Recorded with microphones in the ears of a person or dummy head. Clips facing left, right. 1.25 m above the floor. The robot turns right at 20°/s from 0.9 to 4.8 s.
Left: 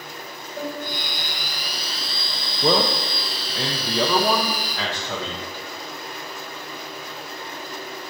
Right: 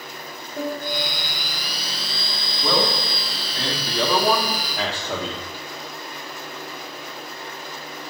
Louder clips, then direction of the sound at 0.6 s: Right 3 dB; 20° right (ahead or behind).